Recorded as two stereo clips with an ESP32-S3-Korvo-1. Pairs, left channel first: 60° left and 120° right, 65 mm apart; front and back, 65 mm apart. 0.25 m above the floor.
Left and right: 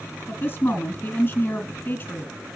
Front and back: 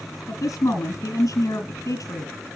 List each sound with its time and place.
0.3 s a woman speaking: 15° left, 2 m